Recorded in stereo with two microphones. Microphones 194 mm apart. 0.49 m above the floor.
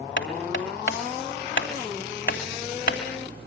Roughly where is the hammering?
Left.